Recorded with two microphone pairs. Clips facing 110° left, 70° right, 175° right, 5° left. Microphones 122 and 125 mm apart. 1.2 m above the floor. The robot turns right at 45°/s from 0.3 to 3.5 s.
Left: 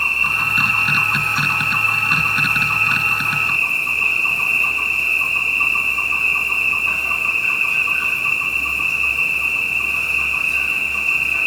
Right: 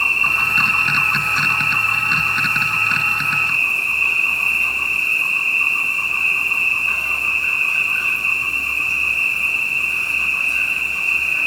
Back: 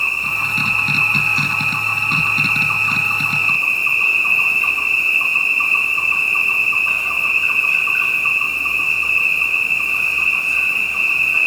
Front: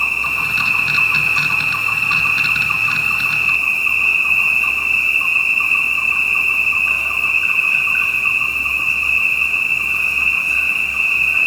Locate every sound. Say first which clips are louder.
0.0 s an insect: right 1 dB, front 1 dB; 20° right, 5.5 m; by 11.5 s 120° left, 5.5 m